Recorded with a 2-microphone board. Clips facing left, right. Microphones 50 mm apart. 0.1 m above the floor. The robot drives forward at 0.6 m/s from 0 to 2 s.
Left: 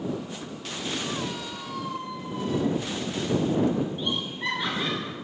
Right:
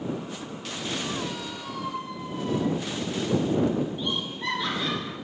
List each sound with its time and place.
1.5 s a squeak: 30° right (ahead or behind), 0.8 m; by 3.9 s 20° right (ahead or behind), 1.0 m
4.0 s laughter: 20° left (ahead or behind), 1.2 m